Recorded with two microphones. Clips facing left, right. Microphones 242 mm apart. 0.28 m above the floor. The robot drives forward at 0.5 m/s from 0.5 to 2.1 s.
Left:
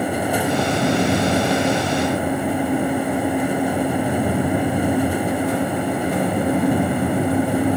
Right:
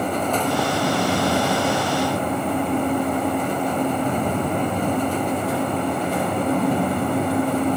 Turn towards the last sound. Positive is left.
No sound to turn to.